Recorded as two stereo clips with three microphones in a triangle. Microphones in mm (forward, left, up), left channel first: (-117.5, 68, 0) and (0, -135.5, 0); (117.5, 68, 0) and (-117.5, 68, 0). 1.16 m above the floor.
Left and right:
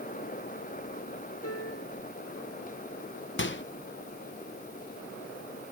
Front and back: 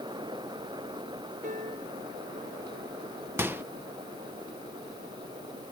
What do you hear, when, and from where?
1.4 s a piano: 125° left
3.4 s a microwave: 100° left